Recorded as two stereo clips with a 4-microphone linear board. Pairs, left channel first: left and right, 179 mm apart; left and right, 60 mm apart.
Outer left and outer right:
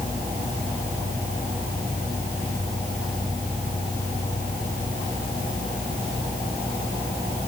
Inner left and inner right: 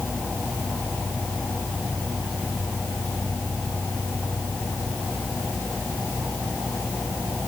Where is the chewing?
I don't hear chewing.